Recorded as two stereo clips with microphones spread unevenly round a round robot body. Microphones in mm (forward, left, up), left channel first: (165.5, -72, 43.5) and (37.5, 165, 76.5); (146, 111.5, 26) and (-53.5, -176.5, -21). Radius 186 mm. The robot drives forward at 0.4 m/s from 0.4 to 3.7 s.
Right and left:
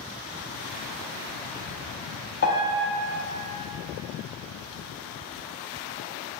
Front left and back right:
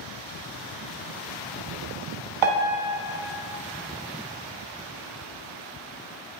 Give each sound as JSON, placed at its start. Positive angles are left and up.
{"t": 2.4, "sound": "a piano", "azimuth_deg": -125, "distance_m": 0.6}